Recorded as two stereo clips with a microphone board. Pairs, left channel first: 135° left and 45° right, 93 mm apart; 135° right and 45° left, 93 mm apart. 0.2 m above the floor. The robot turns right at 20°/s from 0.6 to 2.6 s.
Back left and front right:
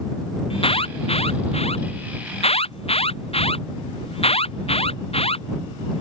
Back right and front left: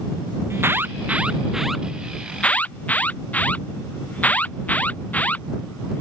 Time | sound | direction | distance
0.5 | an alarm | 110° left | ?